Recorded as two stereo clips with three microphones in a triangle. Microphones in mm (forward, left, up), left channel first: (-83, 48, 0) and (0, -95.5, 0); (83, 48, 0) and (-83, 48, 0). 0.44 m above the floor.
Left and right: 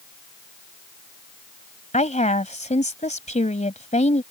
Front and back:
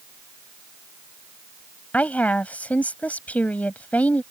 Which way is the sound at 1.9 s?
80° left.